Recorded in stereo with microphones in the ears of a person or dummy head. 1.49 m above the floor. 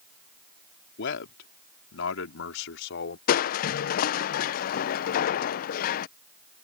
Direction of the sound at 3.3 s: 45° left (ahead or behind).